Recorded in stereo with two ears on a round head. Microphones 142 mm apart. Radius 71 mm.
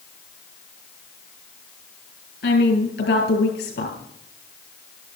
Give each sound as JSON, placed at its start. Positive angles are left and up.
{"t": 2.4, "sound": "a woman speaking", "side_deg": 70, "distance_m": 5.5}